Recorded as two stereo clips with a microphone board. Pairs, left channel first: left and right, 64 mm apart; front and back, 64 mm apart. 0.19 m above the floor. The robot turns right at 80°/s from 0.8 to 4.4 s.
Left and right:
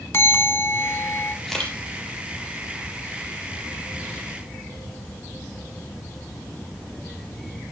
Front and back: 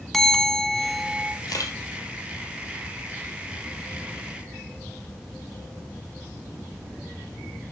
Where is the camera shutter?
Straight ahead, 4 m; by 1.8 s 25° left, 4 m.